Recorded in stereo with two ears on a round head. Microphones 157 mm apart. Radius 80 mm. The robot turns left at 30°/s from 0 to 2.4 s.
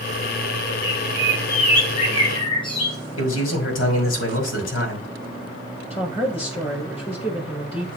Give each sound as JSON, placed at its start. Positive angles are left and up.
{"t": 0.8, "sound": "a bird", "azimuth_deg": 75, "distance_m": 2.5}
{"t": 3.2, "sound": "a man speaking", "side_deg": 80, "distance_m": 3.0}
{"t": 5.9, "sound": "a woman speaking", "side_deg": 30, "distance_m": 4.0}